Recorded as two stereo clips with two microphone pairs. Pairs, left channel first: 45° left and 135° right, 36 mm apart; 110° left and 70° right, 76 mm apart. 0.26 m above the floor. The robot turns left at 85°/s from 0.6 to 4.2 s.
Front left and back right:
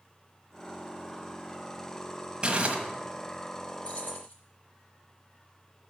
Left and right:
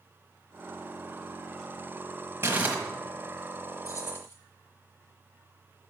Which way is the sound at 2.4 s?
105° right.